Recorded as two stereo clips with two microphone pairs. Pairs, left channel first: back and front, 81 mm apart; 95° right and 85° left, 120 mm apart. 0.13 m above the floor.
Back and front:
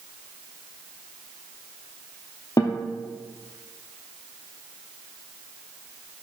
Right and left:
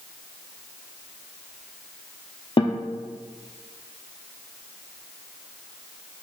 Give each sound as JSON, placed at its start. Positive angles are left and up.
{"t": 2.6, "sound": "a guitar", "azimuth_deg": -140, "distance_m": 0.7}